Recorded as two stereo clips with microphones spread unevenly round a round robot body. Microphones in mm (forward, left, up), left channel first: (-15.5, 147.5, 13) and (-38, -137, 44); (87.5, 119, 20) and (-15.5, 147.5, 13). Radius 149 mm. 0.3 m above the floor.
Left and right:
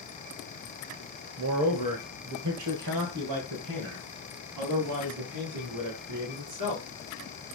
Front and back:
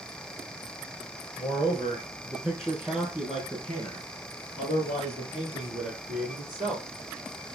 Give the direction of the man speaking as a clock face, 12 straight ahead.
3 o'clock.